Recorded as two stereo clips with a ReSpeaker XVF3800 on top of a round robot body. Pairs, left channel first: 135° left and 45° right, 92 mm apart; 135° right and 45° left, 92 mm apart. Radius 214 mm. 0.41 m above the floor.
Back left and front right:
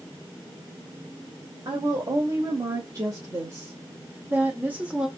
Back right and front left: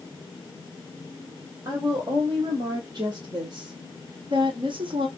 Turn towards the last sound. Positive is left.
turn(degrees=35)